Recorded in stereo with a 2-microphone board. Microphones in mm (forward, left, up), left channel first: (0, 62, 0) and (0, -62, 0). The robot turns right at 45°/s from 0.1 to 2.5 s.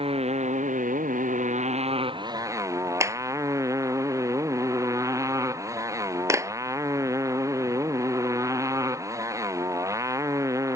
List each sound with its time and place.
0.0 s a motorcycle: 135° right; by 10.8 s 25° right
3.0 s a clap: 20° right (ahead or behind)